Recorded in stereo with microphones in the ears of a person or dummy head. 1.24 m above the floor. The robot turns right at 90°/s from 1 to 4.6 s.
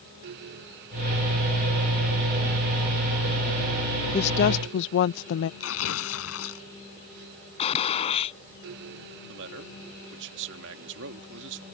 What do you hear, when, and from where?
4.1 s a woman speaking: 30° left; by 5.5 s 70° left
5.6 s tearing paper: 85° left
7.6 s a gunshot: 35° left (ahead or behind)
9.3 s a man speaking: 65° right (ahead or behind)